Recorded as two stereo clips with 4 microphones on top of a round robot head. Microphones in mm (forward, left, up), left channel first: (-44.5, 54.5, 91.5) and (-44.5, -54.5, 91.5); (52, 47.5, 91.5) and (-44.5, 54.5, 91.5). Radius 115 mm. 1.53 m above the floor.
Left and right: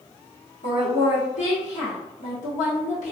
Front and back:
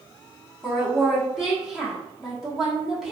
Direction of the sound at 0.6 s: 85° left.